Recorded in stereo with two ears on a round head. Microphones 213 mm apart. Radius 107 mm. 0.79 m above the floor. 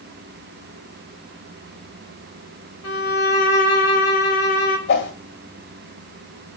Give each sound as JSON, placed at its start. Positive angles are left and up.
{"t": 2.8, "sound": "a violin", "side_deg": 70, "distance_m": 1.4}
{"t": 4.9, "sound": "a whoosh", "side_deg": 50, "distance_m": 1.6}